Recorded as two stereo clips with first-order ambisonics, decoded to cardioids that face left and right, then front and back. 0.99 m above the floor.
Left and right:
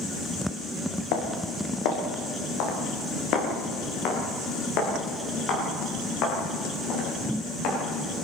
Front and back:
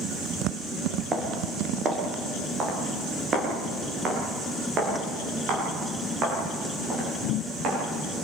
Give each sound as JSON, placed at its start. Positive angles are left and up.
{"t": 1.1, "sound": "footsteps", "azimuth_deg": 110, "distance_m": 4.5}